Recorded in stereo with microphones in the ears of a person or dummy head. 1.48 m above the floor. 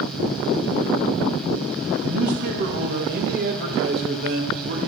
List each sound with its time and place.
2.0 s a man speaking: 55° right (ahead or behind), 1.5 m